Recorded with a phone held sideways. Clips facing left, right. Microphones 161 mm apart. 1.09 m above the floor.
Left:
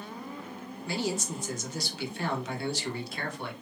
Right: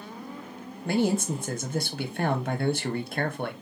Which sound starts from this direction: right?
A man speaking, at 0.8 s.